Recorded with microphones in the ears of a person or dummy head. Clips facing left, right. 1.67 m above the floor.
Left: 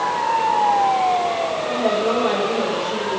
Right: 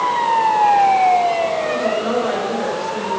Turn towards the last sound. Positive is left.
turn(degrees=0)  # may be behind; listen again after turning